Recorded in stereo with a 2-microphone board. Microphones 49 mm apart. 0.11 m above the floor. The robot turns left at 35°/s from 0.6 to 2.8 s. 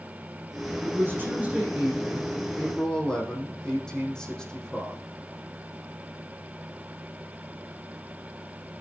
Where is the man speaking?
125° right, 6.5 m; by 5.0 s 165° left, 6.5 m.